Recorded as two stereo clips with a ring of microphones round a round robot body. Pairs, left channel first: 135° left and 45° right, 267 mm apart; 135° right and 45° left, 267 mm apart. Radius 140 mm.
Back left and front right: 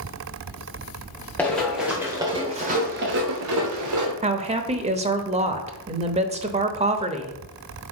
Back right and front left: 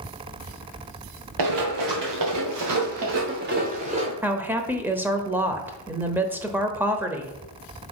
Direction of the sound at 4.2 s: 30° right.